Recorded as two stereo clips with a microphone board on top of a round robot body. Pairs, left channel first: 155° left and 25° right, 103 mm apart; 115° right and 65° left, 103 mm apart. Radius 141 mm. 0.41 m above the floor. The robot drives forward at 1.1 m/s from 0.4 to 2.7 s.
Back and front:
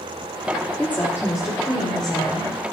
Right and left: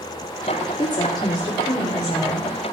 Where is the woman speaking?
130° right, 1.5 m; by 2.5 s 165° right, 3 m.